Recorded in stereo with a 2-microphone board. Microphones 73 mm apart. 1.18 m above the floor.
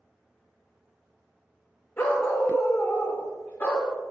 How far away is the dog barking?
About 1.1 m.